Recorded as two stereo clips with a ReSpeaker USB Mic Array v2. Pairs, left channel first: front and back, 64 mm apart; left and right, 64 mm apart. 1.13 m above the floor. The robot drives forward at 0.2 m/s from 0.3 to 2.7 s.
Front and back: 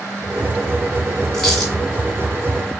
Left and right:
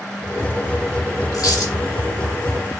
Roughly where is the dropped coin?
Left.